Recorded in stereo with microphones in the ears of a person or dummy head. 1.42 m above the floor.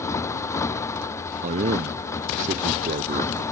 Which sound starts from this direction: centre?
A motorcycle, at 0.0 s.